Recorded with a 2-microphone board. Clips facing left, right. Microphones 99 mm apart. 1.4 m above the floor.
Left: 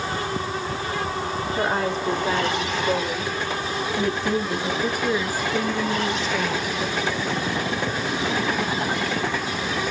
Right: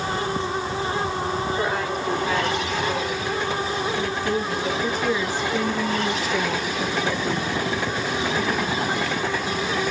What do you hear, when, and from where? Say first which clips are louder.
1.6 s a woman speaking: left 1 dB; 30° left (ahead or behind), 4 m; by 7.5 s 35° right (ahead or behind), 1.4 m